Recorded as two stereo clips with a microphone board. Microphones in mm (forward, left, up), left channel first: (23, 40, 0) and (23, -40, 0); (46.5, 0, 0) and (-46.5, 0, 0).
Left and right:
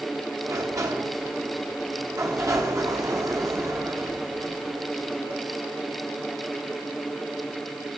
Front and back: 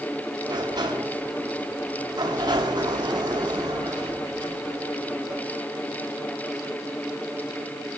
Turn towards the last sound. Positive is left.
turn(degrees=-135)